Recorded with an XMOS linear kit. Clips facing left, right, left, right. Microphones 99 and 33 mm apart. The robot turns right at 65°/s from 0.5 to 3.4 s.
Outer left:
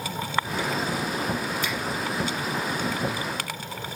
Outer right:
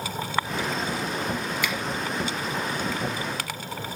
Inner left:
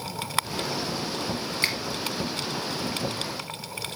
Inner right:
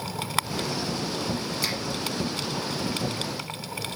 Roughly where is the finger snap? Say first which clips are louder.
Outer right 1 dB, inner left 4 dB; left.